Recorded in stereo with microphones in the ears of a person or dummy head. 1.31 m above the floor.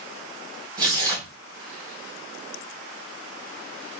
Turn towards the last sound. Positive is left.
turn(degrees=-20)  # may be behind; listen again after turning